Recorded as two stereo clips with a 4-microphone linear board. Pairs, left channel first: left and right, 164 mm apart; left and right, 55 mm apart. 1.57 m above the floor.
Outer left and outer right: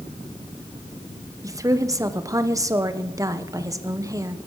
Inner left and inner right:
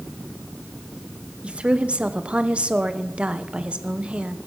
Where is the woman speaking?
20° right (ahead or behind), 1.0 m.